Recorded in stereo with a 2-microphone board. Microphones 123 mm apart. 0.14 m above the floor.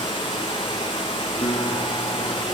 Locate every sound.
0.0 s running water: 40° left (ahead or behind), 1.8 m
1.4 s a guitar: 50° left (ahead or behind), 1.6 m